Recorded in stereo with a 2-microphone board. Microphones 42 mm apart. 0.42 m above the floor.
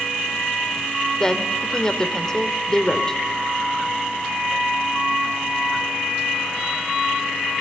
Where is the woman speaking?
20° left (ahead or behind), 1.5 m.